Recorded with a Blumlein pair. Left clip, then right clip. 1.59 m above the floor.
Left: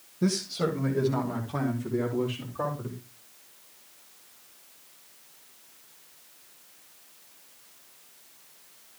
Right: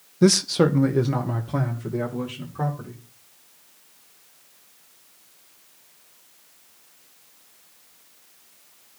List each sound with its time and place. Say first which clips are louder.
0.2 s a man speaking: right 10 dB; 25° right, 0.5 m; by 3.0 s 75° right, 4 m